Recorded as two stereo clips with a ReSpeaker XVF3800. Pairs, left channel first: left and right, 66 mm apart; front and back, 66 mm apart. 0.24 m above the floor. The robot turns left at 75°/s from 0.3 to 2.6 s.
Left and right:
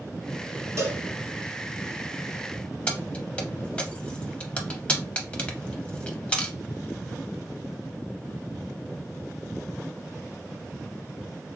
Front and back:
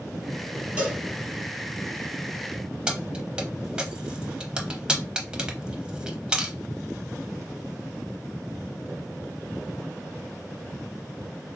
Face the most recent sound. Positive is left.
turn(degrees=130)